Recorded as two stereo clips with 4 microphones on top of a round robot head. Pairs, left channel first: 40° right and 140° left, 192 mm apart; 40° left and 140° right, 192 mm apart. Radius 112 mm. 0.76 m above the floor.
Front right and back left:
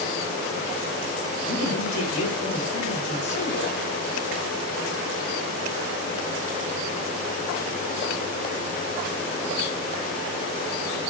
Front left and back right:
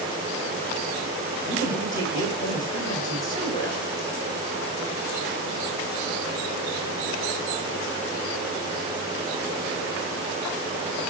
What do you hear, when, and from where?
1.4 s a man speaking: 30° right, 4 m